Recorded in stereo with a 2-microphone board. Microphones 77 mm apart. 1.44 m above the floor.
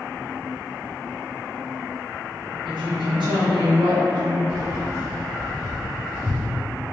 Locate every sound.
2.6 s a woman speaking: 75° right (ahead or behind), 1.2 m
4.5 s keys jangling: 5° right (ahead or behind), 2.0 m